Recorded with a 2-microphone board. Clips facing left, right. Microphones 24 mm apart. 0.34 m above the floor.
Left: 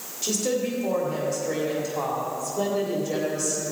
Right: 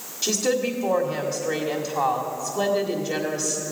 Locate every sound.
0.2 s a woman speaking: 35° right (ahead or behind), 1.7 m